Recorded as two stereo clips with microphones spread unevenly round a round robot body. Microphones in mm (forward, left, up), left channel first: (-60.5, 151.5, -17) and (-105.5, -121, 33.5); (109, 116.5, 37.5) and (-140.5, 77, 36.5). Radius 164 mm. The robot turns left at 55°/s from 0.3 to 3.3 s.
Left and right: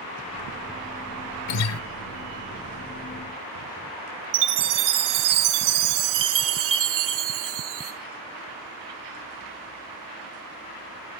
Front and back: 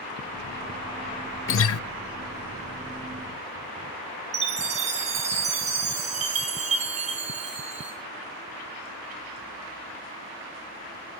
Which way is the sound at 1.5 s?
55° left.